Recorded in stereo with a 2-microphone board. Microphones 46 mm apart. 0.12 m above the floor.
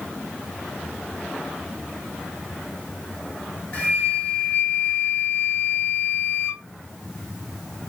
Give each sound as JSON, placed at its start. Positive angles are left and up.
{"t": 3.7, "sound": "a flute", "side_deg": 35, "distance_m": 0.9}